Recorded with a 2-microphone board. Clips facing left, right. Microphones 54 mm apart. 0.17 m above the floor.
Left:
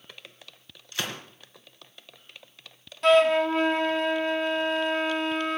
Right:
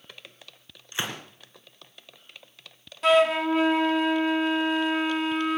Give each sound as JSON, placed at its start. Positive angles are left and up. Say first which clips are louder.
{"t": 0.9, "sound": "a gunshot", "louder": "right 1 dB", "side_deg": -20, "distance_m": 2.5}
{"t": 3.0, "sound": "a flute", "louder": "left 1 dB", "side_deg": -5, "distance_m": 0.8}